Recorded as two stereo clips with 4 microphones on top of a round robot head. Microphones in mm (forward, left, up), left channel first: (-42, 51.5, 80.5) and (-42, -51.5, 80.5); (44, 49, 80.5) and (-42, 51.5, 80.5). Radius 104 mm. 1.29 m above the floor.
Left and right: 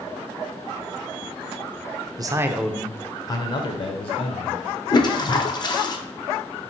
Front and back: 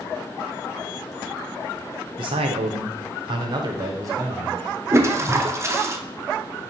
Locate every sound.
2.2 s a man speaking: 140° right, 0.5 m; by 4.8 s 120° left, 1.4 m
4.9 s a toilet flushing: 125° left, 0.7 m